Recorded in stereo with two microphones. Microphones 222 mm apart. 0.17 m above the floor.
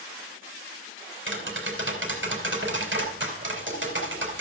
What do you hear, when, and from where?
1.3 s tapping: 60° right (ahead or behind), 3.5 m